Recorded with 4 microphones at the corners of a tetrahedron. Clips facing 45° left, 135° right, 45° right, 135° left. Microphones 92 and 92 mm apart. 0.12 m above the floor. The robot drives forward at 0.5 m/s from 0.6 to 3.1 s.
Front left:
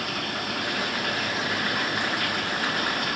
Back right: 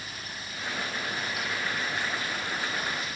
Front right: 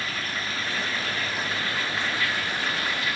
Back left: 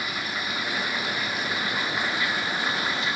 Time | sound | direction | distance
0.0 | running water | 60° left | ?